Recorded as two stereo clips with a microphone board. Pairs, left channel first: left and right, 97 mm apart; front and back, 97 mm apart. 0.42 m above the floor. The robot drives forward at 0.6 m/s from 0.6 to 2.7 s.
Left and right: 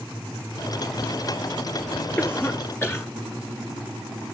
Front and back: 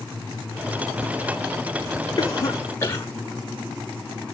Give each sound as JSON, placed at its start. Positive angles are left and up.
{"t": 2.2, "sound": "a cough", "azimuth_deg": 30, "distance_m": 1.3}